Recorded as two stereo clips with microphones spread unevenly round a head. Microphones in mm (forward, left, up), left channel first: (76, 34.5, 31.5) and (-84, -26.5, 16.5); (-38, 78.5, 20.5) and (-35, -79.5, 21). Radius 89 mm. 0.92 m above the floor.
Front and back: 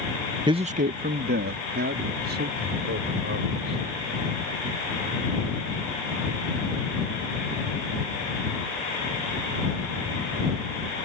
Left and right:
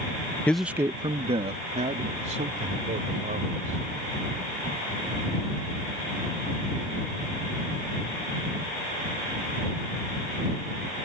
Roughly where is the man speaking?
Behind.